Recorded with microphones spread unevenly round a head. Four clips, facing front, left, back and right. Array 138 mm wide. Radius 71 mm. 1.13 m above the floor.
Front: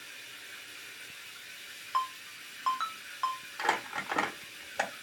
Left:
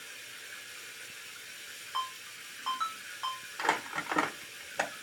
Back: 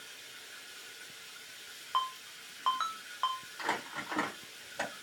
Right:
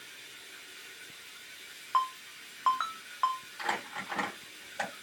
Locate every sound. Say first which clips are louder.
0.0 s running water: left 3 dB, front 2 dB; 90° left, 1.5 m
1.9 s a ringtone: right 7 dB, front 1 dB; 115° right, 0.6 m
3.6 s crumpling: left 6 dB, front 6 dB; 60° left, 1.0 m